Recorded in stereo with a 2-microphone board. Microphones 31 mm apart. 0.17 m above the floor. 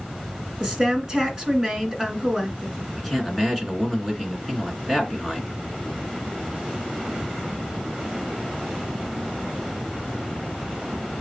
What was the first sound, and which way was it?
A woman speaking, 20° right (ahead or behind).